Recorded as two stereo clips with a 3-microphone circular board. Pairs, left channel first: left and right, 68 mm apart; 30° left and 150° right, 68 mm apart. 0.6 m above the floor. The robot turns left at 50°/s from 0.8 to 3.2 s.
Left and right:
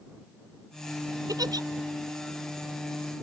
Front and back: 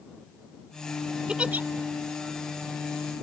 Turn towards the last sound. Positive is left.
turn(degrees=-170)